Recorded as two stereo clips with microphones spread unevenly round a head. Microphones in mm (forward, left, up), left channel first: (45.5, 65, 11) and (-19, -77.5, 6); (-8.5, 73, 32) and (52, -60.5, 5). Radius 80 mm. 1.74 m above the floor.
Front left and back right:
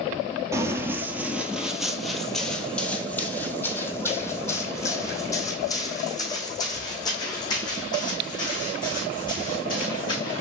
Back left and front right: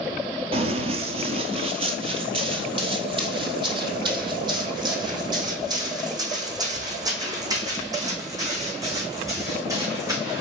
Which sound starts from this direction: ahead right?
Running footsteps, at 0.5 s.